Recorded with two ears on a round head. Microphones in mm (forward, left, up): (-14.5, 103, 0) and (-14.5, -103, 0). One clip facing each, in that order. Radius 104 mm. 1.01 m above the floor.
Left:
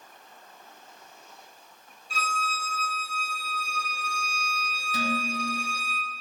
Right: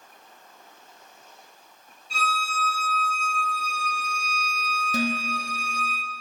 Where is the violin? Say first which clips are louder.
Right 2 dB; 15° right (ahead or behind), 3 m.